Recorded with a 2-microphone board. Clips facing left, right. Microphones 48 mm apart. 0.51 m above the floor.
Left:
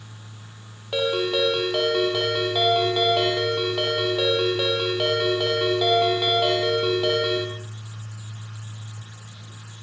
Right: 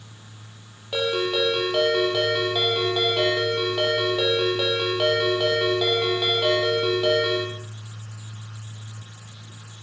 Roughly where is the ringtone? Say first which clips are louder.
Left 1 dB; centre.